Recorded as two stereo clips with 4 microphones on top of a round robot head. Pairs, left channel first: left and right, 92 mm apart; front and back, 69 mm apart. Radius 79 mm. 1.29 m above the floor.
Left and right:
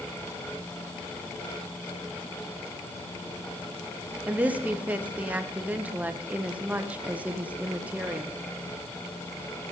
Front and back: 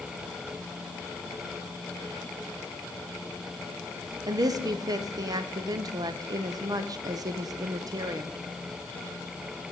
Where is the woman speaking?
165° right, 0.6 m.